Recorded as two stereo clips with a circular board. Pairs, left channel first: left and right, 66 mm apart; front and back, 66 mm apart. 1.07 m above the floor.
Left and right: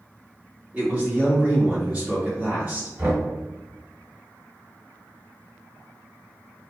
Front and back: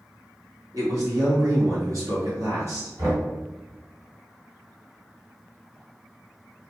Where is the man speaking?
160° right, 1.5 m.